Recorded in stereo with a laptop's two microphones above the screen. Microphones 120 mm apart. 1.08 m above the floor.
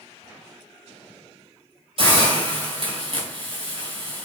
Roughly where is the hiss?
Right.